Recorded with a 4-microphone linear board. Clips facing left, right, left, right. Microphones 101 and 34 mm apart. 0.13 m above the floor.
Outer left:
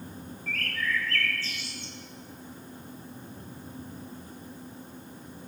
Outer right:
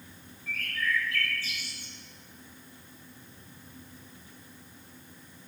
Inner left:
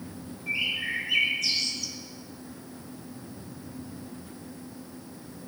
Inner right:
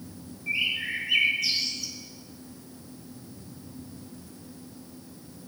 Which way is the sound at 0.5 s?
15° right (ahead or behind).